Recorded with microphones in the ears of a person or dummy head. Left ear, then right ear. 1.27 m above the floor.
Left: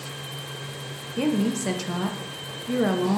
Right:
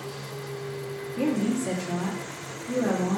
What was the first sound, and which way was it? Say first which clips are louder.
A woman speaking: left 2 dB; 50° left (ahead or behind).